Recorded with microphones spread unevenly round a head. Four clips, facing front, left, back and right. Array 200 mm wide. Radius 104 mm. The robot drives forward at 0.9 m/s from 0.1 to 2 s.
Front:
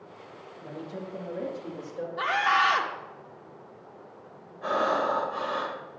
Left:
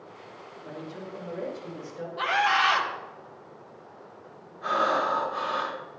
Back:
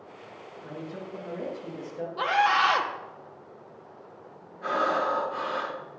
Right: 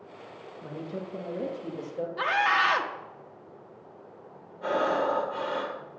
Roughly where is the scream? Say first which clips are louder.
Left 1 dB, back 2 dB; behind right.